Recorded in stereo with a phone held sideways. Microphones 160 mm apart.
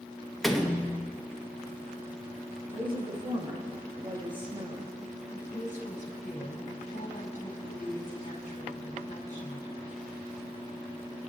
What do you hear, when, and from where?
0.4 s a door slam: centre (ahead or behind), 1.2 m
2.7 s a woman speaking: 30° right (ahead or behind), 2.5 m
5.3 s a woman speaking: 50° left (ahead or behind), 4 m